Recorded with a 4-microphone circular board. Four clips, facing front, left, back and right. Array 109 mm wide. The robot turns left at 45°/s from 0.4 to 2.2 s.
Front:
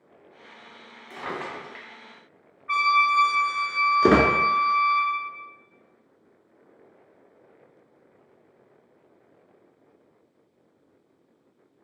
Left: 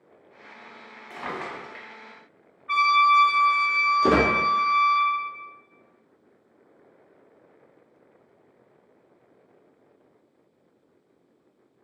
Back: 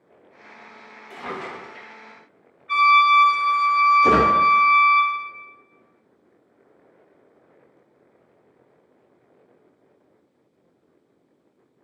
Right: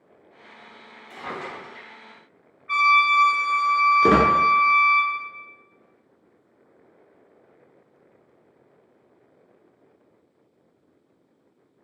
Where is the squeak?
20° right, 0.7 m.